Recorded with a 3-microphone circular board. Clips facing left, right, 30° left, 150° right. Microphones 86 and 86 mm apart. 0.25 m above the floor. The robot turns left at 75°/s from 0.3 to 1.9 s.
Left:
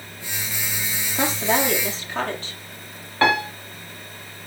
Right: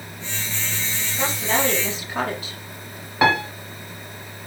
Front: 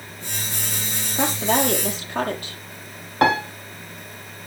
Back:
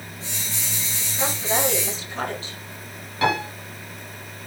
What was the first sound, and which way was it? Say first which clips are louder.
A woman speaking: left 2 dB, front 4 dB; 50° left.